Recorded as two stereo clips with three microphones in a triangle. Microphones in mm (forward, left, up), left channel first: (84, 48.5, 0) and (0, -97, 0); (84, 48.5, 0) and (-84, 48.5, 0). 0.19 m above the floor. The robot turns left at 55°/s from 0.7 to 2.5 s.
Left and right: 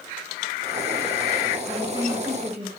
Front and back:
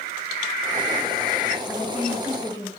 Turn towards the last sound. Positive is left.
turn(degrees=-115)